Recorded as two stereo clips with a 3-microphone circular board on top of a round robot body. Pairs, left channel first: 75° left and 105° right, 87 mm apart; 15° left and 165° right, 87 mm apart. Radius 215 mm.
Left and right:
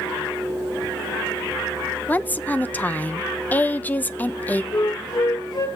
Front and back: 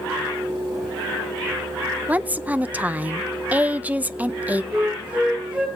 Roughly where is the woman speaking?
Behind left.